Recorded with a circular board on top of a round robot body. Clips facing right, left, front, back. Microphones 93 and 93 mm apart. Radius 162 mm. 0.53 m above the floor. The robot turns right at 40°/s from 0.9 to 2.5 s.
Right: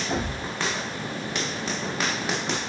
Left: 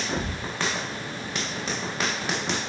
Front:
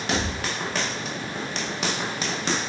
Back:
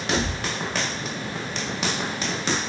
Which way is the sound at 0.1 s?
50° right.